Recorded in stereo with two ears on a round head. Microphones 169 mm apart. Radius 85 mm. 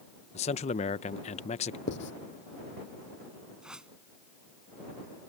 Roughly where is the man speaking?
Left.